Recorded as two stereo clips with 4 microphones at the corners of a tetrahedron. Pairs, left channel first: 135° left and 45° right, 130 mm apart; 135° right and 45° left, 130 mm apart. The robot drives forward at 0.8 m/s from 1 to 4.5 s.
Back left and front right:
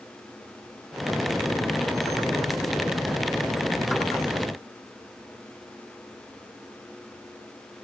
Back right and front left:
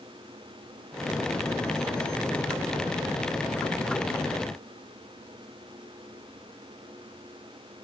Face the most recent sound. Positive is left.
No sound to turn to.